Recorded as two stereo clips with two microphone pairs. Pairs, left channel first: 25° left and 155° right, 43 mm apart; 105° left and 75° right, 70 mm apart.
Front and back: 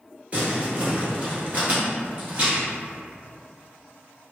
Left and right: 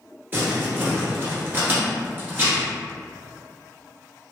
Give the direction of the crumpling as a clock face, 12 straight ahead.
4 o'clock.